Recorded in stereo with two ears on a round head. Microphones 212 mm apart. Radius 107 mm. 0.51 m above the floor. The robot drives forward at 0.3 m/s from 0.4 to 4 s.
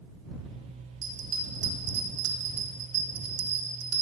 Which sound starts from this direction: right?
A bell, at 1.0 s.